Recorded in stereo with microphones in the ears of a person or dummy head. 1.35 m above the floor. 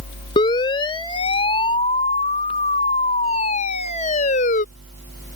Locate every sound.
0.4 s a siren: 20° left (ahead or behind); by 4.7 s 35° left (ahead or behind)